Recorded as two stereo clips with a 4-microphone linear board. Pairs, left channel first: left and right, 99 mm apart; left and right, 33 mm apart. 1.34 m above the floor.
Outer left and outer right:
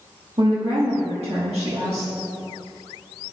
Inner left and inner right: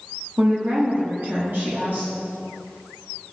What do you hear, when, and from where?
0.4 s a woman speaking: 80° right, 1.3 m